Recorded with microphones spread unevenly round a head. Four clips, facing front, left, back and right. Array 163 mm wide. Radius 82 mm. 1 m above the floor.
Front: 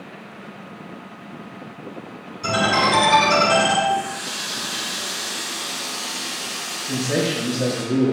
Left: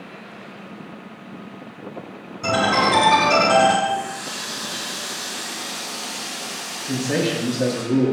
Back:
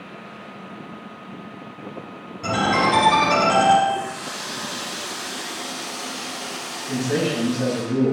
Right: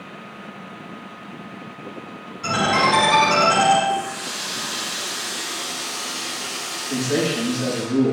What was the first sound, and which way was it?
A ringtone, 120° left.